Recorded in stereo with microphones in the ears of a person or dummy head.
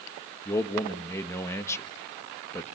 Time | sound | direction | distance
0.5 | a man speaking | 15° left (ahead or behind) | 1.6 m